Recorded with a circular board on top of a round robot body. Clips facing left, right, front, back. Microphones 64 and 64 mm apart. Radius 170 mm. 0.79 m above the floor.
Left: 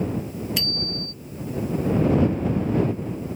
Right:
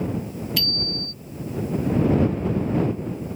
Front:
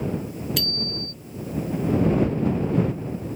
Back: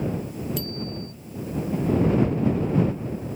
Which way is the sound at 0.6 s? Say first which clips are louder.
Right 1 dB, front 1 dB; 20° left.